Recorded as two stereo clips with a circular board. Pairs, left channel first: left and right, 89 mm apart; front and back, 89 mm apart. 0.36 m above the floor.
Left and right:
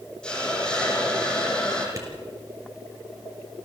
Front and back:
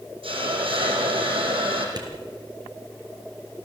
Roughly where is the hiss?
Behind.